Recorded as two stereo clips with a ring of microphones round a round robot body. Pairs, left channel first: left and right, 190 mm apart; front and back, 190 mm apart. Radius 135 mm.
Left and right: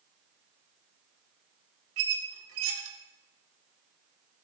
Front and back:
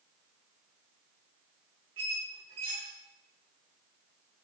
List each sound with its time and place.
2.0 s a squeak: 110° right, 0.8 m